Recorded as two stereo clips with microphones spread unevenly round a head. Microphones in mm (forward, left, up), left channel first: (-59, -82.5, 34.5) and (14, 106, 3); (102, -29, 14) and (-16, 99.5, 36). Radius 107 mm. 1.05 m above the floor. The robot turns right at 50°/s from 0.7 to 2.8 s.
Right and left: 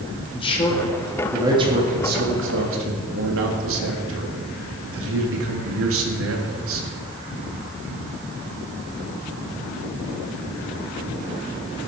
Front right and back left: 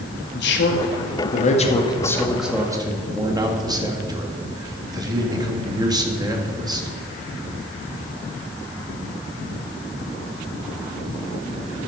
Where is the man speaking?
40° right, 1.9 m; by 6.9 s 65° left, 1.9 m.